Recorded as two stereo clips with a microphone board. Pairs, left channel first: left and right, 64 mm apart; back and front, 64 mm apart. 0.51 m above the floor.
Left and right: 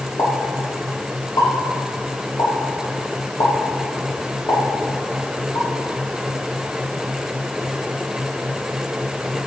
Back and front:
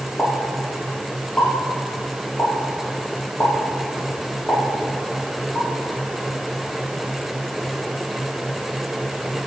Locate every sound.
0.2 s a pop: 105° left, 5.5 m